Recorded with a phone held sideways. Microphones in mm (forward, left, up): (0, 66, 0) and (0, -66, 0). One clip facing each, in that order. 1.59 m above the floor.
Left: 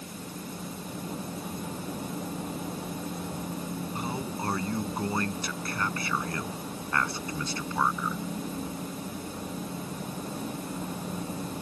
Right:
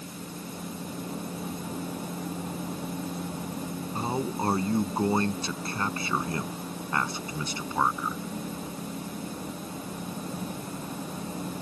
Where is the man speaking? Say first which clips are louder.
Right 7 dB; 30° right (ahead or behind); by 8.2 s 15° right (ahead or behind).